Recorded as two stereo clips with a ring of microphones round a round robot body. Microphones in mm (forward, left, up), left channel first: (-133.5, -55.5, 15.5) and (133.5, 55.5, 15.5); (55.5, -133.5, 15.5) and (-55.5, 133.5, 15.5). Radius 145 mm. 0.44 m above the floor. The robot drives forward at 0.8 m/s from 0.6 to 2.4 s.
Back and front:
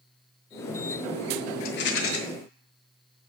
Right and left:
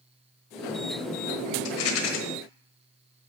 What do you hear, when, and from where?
1.6 s a rattle: 100° right, 1.2 m; by 2.2 s 115° right, 1.4 m